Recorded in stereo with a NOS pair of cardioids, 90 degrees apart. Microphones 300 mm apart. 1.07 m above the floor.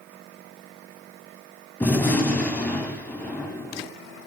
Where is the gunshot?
5° left, 9 m.